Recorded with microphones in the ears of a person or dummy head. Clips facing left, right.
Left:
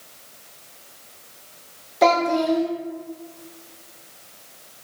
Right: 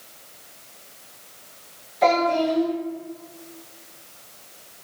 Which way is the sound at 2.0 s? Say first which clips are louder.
Left 1 dB; 70° left (ahead or behind).